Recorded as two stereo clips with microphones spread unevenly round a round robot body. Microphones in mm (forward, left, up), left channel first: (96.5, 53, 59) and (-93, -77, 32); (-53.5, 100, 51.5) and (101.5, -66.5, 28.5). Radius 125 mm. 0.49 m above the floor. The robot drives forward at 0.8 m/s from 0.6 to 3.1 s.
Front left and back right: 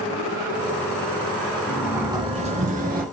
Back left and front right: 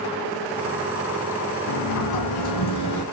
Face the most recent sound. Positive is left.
turn(degrees=160)